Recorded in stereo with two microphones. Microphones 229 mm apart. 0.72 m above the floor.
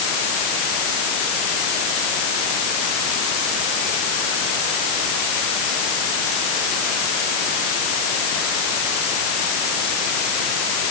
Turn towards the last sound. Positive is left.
No sound to turn to.